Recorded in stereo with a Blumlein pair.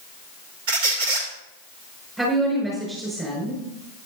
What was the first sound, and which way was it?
A squeak, 50° right.